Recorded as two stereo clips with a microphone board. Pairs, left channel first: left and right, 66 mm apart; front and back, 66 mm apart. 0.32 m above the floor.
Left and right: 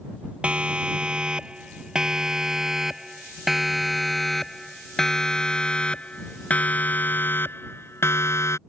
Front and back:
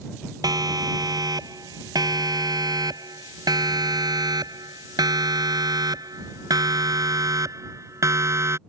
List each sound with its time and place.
0.4 s a siren: 160° right; by 8.6 s 135° left